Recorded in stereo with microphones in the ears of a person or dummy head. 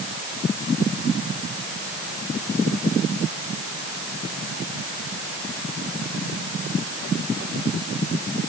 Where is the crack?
I don't hear a crack.